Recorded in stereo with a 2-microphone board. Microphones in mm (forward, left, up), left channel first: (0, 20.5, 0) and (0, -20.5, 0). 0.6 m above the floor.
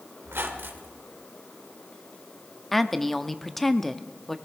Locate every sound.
0.2 s a squeak: 60° right (ahead or behind), 1.5 m
2.7 s a woman speaking: 10° left (ahead or behind), 0.6 m